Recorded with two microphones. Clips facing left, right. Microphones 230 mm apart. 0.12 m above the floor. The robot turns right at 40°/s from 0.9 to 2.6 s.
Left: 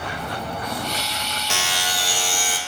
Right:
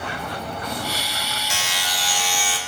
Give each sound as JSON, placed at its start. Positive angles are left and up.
{"t": 1.5, "sound": "a buzzer", "azimuth_deg": 90, "distance_m": 0.8}